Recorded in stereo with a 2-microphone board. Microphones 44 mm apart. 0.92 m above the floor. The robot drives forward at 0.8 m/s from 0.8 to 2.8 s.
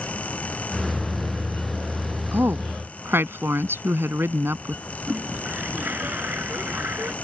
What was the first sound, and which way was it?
A woman speaking, 60° right (ahead or behind).